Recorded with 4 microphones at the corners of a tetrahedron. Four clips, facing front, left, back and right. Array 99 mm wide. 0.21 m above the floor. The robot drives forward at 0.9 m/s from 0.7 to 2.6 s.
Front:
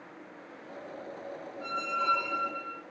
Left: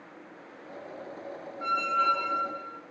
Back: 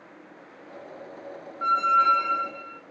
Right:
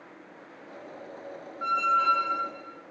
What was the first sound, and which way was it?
A squeak, 175° right.